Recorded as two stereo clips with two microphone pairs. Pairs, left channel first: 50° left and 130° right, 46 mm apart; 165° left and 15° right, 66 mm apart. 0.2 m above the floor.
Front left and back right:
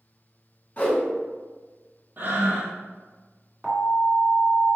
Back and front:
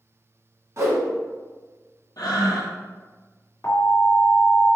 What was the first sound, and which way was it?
A whoosh, 10° left.